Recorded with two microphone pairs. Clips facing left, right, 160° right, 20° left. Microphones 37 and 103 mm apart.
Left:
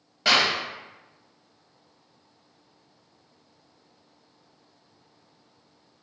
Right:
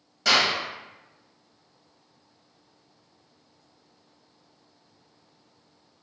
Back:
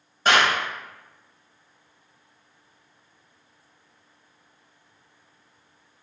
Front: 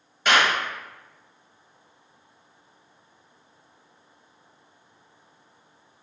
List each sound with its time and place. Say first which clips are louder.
0.2 s a clap: left 1 dB, back 1 dB; 145° left, 1.7 m